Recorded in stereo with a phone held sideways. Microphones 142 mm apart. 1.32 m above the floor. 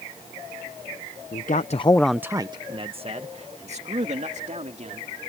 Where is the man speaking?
75° left (ahead or behind); by 5.1 s 55° right (ahead or behind).